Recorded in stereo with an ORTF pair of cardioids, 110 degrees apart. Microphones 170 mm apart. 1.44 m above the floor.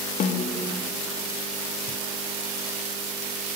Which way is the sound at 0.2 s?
50° left.